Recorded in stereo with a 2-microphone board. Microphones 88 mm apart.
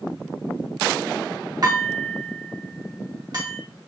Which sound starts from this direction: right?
Dishes clattering, at 1.6 s.